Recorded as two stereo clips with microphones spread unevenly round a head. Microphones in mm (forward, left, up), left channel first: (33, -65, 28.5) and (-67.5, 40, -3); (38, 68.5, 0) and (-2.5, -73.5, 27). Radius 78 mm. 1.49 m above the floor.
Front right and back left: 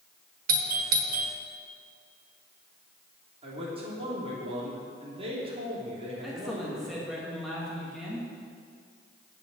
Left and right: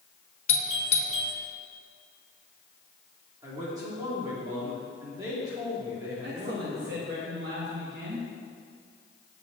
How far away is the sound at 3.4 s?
About 3 m.